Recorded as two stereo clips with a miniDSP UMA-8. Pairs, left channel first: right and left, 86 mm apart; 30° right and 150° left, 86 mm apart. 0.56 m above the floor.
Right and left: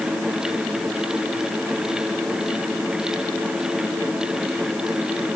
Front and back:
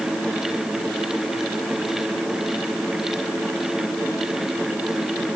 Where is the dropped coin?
No dropped coin in this recording.